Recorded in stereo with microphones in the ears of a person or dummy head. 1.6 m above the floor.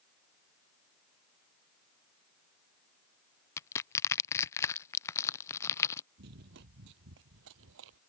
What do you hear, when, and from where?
3.6 s crushing: 15° left (ahead or behind)
6.2 s running footsteps: 55° right (ahead or behind); by 8.0 s 65° right (ahead or behind)